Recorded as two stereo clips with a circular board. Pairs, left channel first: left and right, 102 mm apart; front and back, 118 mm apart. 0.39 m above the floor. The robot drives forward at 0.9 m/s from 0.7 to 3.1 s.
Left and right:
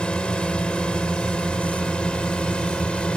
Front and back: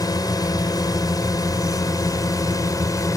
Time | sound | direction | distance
0.0 | a drone | 15° left | ?